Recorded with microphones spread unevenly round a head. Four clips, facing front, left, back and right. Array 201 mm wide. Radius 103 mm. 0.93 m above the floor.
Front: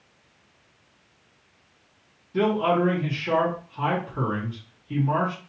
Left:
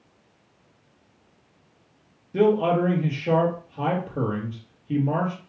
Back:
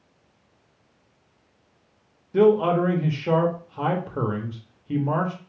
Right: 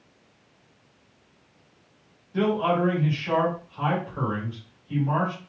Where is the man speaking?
130° left, 1.2 m.